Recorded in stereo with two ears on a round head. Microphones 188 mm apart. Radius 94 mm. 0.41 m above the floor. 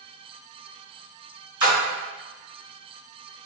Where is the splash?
20° right (ahead or behind), 1.7 m.